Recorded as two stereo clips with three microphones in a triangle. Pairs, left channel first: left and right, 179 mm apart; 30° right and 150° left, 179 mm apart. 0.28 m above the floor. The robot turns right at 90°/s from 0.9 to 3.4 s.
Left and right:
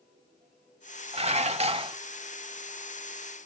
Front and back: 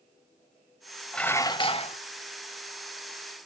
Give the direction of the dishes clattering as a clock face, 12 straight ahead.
4 o'clock.